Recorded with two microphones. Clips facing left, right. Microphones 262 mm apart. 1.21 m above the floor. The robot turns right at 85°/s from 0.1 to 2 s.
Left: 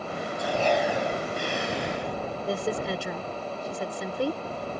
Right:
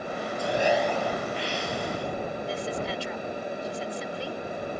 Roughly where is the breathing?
Ahead right.